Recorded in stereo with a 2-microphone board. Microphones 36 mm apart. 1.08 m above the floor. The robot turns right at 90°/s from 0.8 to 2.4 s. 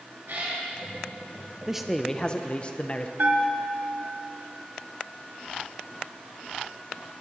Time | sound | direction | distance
0.3 | a cat meowing | 75° right (ahead or behind) | 3.5 m
1.7 | a man speaking | 20° right | 0.5 m
3.2 | a bell | 65° right (ahead or behind) | 1.1 m